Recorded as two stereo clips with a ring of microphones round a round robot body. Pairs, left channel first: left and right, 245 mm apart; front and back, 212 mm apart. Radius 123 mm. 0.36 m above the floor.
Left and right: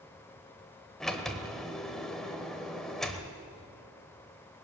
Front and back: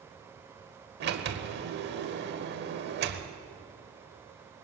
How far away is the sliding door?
About 1.0 m.